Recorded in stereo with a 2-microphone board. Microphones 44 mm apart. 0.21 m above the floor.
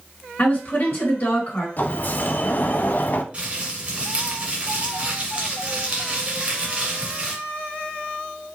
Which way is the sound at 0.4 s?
50° left (ahead or behind).